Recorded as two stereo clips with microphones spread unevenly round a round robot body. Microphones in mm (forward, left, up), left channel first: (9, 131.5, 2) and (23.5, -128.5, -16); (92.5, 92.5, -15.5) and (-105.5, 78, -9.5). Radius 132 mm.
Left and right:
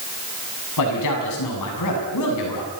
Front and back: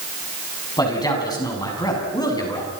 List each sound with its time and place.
0.8 s a man speaking: 75° left, 7.5 m